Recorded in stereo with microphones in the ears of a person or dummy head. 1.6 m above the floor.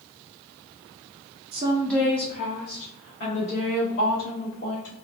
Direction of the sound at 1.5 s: 35° right (ahead or behind).